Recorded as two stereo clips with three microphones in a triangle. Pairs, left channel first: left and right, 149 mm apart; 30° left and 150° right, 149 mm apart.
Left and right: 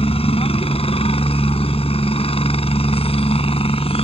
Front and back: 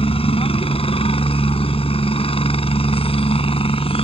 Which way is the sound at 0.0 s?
60° left.